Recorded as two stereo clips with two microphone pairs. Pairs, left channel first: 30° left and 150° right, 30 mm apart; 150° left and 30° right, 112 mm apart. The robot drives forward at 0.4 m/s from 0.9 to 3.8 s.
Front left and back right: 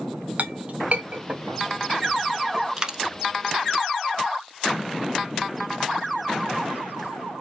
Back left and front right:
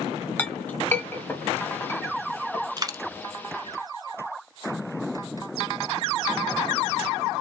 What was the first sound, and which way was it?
A clink, 145° right.